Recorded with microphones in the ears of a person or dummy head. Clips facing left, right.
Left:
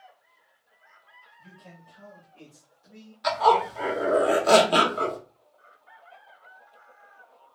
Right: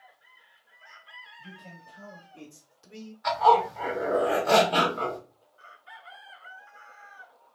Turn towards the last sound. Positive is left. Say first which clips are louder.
# even
turn(degrees=45)  # may be behind; listen again after turning